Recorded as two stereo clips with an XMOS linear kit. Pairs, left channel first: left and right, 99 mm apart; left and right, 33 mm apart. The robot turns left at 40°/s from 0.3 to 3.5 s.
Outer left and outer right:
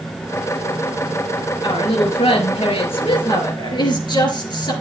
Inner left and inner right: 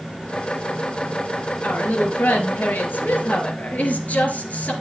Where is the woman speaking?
125° left, 4 m; by 4.7 s 50° left, 4 m.